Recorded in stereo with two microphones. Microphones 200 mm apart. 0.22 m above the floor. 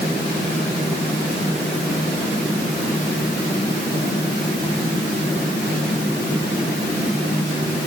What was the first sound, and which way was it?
Only background noise.